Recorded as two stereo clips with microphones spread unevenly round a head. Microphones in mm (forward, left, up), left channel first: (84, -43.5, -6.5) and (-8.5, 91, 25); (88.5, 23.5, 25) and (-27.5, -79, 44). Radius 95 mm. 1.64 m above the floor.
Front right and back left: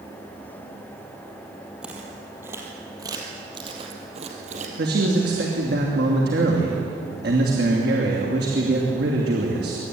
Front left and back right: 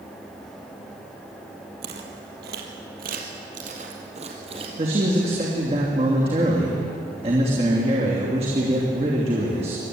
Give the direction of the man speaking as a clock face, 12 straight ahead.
7 o'clock.